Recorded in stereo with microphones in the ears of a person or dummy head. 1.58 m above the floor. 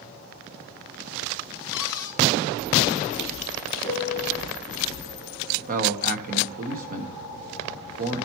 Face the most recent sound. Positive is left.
turn(degrees=-45)  # may be behind; listen again after turning